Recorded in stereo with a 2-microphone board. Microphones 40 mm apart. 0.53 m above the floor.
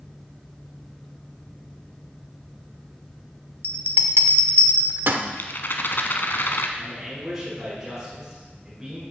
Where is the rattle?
55° left (ahead or behind), 1.1 m.